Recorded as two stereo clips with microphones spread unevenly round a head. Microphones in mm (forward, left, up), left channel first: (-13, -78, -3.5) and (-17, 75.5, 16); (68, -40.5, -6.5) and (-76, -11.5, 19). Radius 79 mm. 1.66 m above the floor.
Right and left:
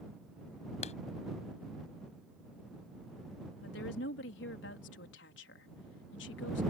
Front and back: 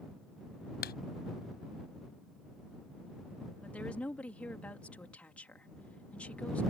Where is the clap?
35° right.